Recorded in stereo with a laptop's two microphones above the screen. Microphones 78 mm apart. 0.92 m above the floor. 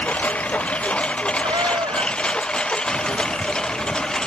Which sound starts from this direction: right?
A cat meowing, at 1.4 s.